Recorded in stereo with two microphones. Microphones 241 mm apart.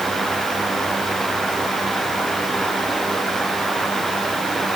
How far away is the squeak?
No squeak in this recording.